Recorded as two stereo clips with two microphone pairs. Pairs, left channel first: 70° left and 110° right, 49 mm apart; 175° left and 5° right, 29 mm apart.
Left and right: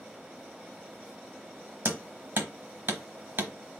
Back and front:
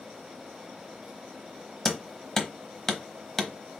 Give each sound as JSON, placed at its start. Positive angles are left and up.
{"t": 1.9, "sound": "hammering", "azimuth_deg": -110, "distance_m": 0.8}